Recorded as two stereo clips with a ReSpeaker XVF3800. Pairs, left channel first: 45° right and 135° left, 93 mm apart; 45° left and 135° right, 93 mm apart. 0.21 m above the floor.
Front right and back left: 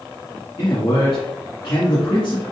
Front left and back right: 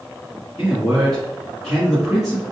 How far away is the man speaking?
About 1.9 m.